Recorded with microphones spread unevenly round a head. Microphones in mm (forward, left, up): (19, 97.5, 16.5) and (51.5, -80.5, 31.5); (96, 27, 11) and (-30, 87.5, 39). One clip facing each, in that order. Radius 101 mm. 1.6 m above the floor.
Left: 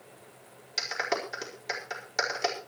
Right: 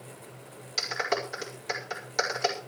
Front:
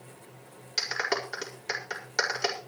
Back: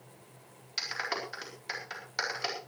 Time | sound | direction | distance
0.8 | a clap | 15° left | 4.5 m